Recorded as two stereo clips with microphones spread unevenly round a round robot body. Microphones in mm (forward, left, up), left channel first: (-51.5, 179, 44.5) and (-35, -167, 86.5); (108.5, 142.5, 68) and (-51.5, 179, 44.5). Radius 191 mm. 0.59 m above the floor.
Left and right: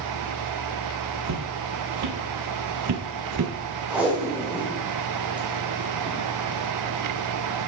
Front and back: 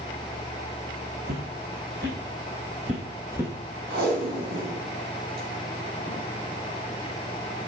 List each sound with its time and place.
1.2 s footsteps: 130° right, 1.9 m; by 3.5 s 100° right, 0.7 m
3.9 s tape being pulled: 175° right, 2.5 m